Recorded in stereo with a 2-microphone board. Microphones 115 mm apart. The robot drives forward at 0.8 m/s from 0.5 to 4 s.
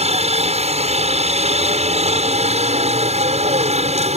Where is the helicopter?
70° right (ahead or behind).